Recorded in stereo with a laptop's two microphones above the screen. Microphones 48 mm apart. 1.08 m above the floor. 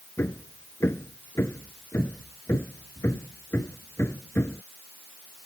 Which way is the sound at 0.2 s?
60° left (ahead or behind).